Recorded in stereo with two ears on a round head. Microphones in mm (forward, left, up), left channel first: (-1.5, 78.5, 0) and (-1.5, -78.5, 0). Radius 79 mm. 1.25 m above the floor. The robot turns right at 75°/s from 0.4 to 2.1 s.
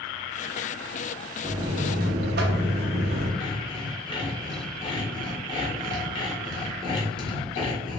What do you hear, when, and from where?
1.4 s a buzzer: 165° right, 0.5 m; by 3.3 s 115° right, 0.5 m
3.4 s sawing: 30° left (ahead or behind), 1.3 m